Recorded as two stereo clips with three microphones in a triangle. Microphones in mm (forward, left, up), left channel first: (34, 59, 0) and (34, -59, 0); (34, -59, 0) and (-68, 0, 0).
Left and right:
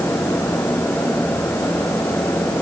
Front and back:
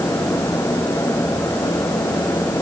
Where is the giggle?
I don't hear a giggle.